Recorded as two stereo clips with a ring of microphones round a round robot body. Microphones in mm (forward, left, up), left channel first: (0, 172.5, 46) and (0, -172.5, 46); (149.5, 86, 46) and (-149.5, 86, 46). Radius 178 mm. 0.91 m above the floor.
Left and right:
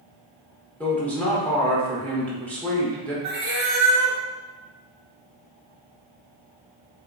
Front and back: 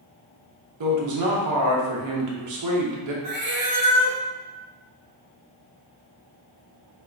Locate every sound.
0.8 s a man speaking: 175° left, 0.8 m
3.2 s a cat meowing: 150° right, 0.8 m